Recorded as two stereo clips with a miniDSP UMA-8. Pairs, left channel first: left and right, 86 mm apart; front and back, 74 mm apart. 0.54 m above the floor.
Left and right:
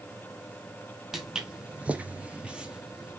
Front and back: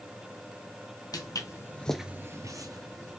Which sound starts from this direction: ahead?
Footsteps, at 1.1 s.